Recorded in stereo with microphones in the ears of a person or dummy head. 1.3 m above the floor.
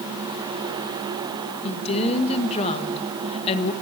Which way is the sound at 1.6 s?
35° left (ahead or behind).